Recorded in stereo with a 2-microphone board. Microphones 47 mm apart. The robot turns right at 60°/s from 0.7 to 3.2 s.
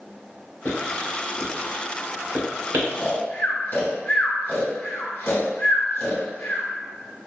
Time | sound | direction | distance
0.7 | writing | 40° left (ahead or behind) | 1.9 m
2.9 | snoring | 45° left (ahead or behind) | 1.1 m